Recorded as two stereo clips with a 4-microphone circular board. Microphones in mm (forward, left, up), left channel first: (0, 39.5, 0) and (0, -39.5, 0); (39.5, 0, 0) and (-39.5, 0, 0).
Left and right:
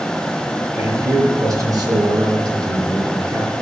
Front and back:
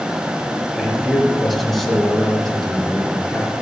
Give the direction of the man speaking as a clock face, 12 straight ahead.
3 o'clock.